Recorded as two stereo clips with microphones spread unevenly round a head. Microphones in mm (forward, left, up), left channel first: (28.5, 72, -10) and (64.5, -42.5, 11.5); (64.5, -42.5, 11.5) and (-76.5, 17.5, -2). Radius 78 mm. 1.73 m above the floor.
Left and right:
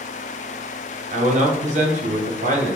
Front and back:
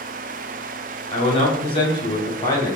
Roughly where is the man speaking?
Ahead right.